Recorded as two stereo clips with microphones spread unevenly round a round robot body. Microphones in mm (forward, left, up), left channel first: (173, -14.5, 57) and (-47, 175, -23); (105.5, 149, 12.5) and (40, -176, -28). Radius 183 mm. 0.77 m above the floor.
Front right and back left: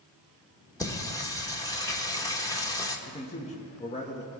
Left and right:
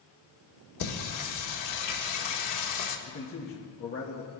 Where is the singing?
40° left, 1.5 m.